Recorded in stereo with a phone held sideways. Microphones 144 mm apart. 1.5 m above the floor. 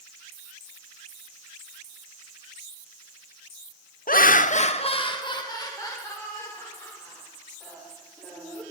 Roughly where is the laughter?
Left.